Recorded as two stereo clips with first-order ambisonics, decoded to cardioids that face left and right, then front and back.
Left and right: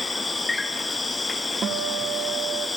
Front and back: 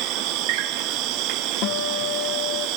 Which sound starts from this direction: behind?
An insect, at 0.0 s.